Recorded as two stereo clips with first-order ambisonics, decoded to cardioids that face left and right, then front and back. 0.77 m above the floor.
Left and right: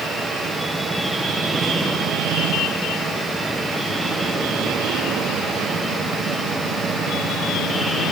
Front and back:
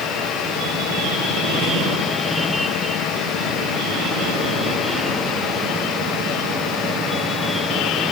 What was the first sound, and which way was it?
Only background noise.